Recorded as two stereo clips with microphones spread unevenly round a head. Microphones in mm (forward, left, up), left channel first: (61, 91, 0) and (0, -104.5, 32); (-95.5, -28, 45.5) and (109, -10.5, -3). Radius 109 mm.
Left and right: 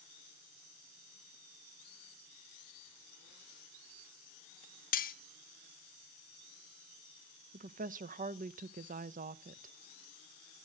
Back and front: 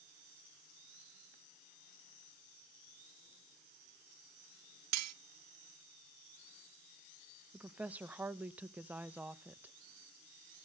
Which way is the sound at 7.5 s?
60° right.